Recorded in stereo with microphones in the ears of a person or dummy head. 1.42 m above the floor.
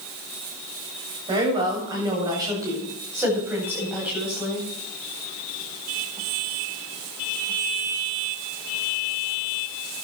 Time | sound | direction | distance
1.3 | a woman speaking | 25° right (ahead or behind) | 8 m